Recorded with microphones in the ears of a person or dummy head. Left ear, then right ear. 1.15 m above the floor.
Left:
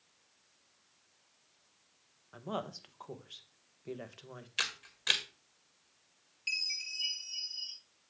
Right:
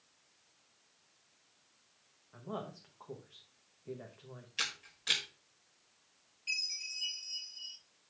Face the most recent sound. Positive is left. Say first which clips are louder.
# left 2 dB
turn(degrees=55)  # may be behind; listen again after turning